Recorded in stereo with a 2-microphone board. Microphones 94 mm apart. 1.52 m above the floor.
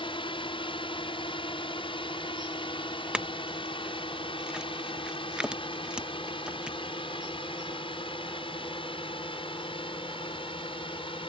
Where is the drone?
75° left (ahead or behind); by 11.3 s 80° left.